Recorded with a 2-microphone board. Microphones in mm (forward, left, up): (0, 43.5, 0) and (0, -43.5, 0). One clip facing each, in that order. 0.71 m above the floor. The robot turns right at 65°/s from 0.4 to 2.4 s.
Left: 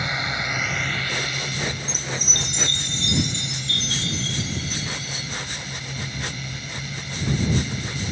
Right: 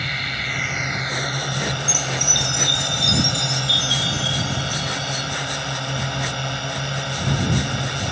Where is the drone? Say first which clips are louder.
Left 1 dB; 160° left; by 8.1 s 70° right.